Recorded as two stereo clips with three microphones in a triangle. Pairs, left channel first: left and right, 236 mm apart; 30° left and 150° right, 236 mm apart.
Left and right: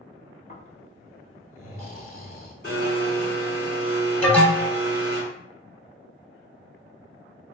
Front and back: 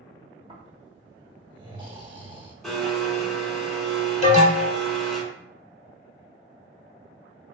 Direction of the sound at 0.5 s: 145° left.